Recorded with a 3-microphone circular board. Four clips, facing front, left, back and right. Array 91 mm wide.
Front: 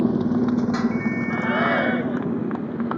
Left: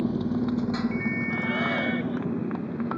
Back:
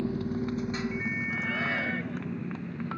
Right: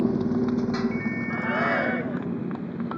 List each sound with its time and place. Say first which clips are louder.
0.0 s a motorcycle: right 3 dB, front 11 dB; 15° right; by 3.0 s 5° left
1.3 s a shout: right 5 dB, front 13 dB; 20° right